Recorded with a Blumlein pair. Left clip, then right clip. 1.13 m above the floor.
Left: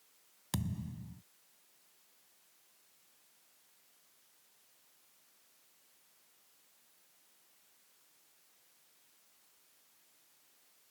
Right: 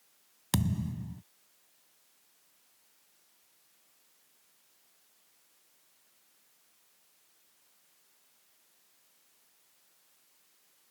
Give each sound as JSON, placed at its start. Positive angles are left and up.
{"t": 0.5, "sound": "a thud", "azimuth_deg": -70}